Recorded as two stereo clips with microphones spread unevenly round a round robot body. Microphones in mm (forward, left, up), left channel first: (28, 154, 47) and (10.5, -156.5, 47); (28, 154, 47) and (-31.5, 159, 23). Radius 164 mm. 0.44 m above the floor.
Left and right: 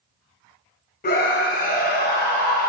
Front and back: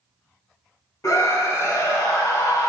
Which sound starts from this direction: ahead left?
A scream, at 1.0 s.